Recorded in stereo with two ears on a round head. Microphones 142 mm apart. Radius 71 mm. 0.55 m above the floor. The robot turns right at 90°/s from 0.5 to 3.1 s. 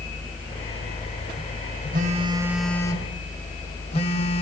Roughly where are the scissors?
I don't hear scissors.